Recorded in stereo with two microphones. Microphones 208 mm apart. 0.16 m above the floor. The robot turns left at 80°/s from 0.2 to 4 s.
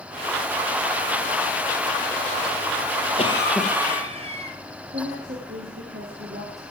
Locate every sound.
3.2 s a cough: 35° left, 3 m; by 4.6 s 30° right, 3 m
4.9 s a woman speaking: 55° right (ahead or behind), 4 m